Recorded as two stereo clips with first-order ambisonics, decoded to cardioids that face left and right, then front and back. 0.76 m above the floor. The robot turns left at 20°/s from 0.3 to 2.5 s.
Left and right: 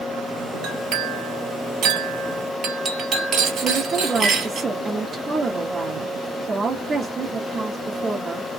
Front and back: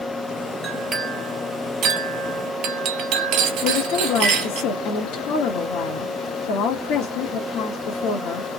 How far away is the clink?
About 1.2 m.